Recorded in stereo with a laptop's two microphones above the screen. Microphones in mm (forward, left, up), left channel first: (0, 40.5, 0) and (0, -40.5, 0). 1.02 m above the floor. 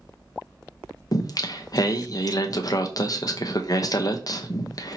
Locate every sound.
1.1 s singing: 50° left (ahead or behind), 0.7 m